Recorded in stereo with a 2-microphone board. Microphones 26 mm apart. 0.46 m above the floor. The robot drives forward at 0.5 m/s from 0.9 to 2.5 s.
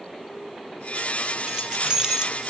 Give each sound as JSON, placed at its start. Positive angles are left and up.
{"t": 1.5, "sound": "keys jangling", "side_deg": -25, "distance_m": 2.5}